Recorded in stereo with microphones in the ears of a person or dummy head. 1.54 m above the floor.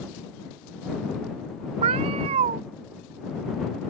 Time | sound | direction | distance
1.8 | a cat meowing | 20° right (ahead or behind) | ?